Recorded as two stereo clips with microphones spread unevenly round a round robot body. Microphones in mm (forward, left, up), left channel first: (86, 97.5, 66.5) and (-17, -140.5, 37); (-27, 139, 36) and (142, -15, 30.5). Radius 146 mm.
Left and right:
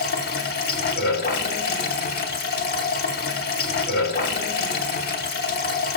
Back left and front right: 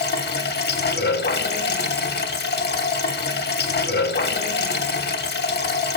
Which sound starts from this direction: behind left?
Running water, at 0.0 s.